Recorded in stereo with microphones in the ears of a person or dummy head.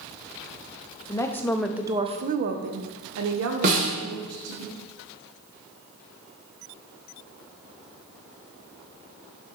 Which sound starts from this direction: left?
A woman speaking, at 1.1 s.